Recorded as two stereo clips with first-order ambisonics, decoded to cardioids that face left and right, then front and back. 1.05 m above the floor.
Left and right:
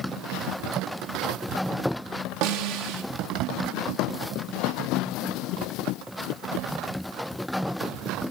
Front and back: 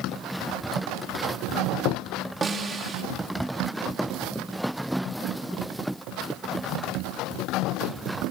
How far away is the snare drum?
About 2 m.